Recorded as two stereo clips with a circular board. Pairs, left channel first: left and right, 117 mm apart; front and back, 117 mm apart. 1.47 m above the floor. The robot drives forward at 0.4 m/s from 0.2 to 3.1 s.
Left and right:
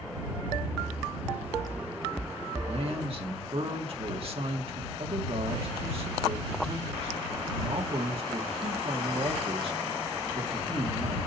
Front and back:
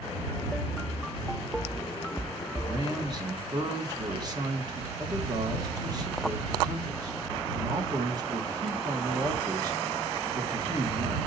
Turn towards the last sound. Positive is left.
turn(degrees=-125)